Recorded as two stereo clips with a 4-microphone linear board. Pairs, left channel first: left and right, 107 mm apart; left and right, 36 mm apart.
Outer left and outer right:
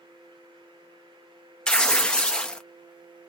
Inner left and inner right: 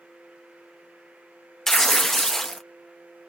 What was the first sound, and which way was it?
Tearing paper, 10° left (ahead or behind).